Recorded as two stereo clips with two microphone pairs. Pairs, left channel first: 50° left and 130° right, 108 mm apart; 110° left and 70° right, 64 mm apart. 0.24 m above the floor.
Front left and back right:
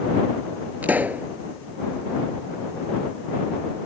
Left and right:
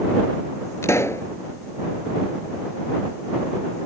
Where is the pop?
155° left.